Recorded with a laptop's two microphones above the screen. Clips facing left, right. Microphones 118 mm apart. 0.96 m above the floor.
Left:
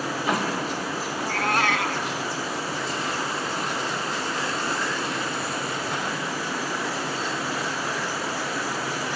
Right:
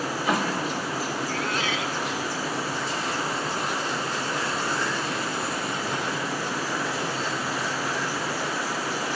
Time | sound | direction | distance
1.2 | a cat meowing | 60° left (ahead or behind) | ?